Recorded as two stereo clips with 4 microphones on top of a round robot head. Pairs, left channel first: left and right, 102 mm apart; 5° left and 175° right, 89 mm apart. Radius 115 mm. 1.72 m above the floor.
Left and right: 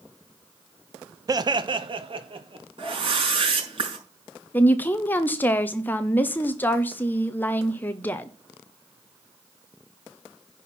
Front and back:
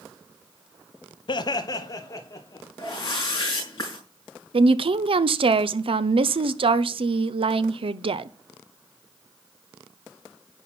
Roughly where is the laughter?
Ahead right.